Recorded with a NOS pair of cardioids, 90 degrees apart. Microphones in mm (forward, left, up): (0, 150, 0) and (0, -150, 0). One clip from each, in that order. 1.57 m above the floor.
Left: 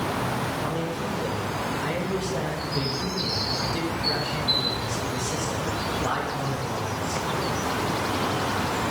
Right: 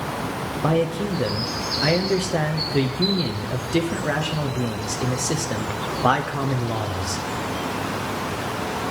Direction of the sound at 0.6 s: 65° right.